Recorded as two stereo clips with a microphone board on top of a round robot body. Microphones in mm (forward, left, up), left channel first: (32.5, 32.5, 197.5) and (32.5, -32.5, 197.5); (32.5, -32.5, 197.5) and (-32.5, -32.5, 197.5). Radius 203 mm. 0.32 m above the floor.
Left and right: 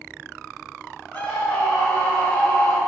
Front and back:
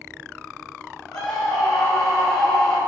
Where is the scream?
20° left, 5 m.